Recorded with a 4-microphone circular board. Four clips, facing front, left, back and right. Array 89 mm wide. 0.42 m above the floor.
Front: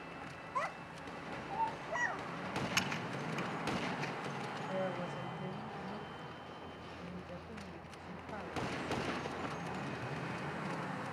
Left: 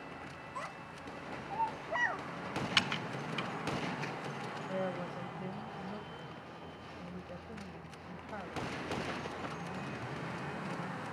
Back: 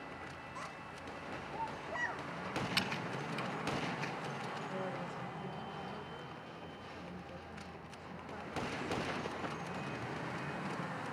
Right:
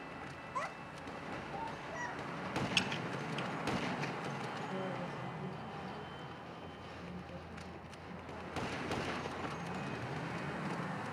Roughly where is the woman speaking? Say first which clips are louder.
Left 3 dB, front 3 dB; ahead left.